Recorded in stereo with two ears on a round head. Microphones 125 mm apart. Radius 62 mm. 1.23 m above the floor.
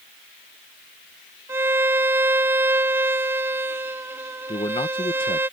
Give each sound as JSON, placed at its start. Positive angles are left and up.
{"t": 1.5, "sound": "a violin", "side_deg": -15}
{"t": 4.5, "sound": "a man speaking", "side_deg": 35}